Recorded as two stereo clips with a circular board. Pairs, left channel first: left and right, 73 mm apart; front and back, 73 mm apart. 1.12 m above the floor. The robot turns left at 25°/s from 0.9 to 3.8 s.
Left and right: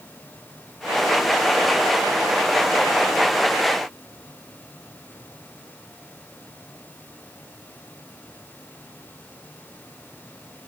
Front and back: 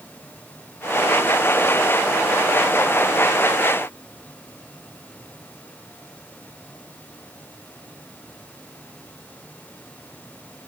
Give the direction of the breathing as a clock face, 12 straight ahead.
No breathing in this recording.